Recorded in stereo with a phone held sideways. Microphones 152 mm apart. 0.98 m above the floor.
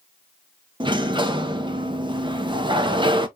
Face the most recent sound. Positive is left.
turn(degrees=-30)  # may be behind; listen again after turning